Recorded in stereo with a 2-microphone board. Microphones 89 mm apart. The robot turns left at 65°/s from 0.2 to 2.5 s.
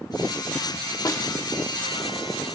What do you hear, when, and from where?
1.1 s a snare drum: 45° left (ahead or behind), 1.0 m